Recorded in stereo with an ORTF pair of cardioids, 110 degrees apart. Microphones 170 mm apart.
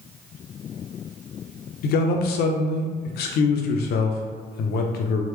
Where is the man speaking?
70° left, 0.6 m.